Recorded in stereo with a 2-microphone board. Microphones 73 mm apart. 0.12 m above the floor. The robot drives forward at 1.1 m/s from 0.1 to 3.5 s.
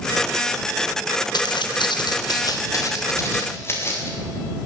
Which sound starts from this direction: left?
Footsteps, at 1.3 s.